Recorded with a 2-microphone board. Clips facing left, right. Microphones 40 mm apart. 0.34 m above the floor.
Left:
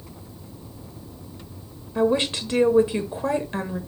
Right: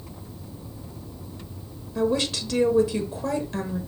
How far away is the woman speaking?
About 0.9 m.